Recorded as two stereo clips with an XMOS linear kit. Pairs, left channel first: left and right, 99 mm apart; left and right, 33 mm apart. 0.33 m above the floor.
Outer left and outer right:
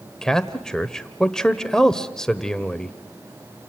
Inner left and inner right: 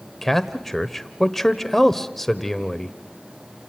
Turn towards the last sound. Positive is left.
turn(degrees=5)  # may be behind; listen again after turning